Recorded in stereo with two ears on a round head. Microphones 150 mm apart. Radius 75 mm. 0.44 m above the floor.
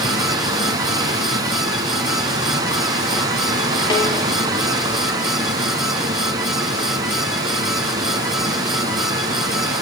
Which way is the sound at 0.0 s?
25° right (ahead or behind).